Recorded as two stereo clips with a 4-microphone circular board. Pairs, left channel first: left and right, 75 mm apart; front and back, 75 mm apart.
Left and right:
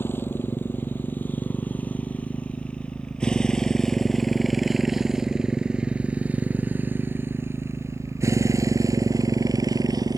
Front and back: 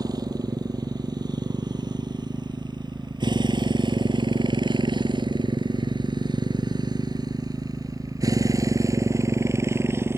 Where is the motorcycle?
150° left; by 10.2 s 120° right.